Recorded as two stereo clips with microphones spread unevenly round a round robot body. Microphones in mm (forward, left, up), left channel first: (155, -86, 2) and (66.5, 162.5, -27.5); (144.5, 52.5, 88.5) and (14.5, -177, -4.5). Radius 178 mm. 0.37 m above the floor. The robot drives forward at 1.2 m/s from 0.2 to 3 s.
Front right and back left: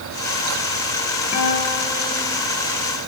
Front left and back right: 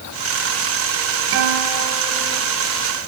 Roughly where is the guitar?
Behind right.